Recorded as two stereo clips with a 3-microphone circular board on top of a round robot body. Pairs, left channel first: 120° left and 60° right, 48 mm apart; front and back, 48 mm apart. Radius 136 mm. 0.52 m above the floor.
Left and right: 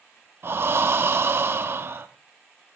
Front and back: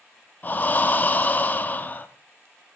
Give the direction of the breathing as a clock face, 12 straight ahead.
1 o'clock.